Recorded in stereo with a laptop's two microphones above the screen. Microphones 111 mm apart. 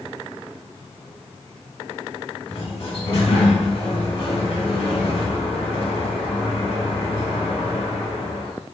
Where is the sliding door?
65° left (ahead or behind), 1.9 m.